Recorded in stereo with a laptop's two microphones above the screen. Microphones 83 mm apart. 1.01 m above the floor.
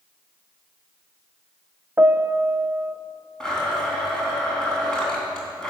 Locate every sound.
2.0 s a piano: 30° right (ahead or behind), 0.5 m
3.4 s a blender: 10° left (ahead or behind), 3.5 m